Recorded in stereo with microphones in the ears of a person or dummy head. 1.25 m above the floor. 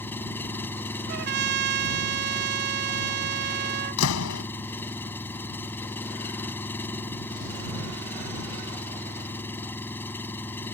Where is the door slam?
80° left.